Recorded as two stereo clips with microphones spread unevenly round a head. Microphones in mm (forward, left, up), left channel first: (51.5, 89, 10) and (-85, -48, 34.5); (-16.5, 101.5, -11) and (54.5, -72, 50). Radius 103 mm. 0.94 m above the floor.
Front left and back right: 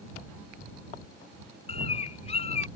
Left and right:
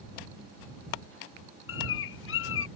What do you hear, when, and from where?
1.7 s a bird: 105° left